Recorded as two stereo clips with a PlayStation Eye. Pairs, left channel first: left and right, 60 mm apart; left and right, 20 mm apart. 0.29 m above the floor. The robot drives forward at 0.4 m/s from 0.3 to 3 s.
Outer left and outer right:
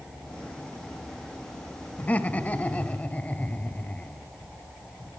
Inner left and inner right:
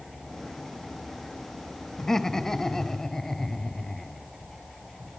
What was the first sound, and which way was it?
Laughter, 30° left (ahead or behind).